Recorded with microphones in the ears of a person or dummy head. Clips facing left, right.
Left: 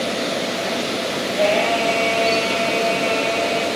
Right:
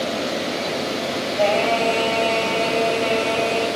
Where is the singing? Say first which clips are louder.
Left 1 dB; 10° right (ahead or behind), 5.5 m.